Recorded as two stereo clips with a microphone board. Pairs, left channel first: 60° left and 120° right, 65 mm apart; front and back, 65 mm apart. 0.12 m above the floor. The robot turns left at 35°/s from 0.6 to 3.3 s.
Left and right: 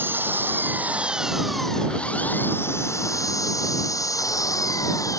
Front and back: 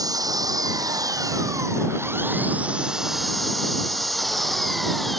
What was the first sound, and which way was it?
An engine running, 175° right.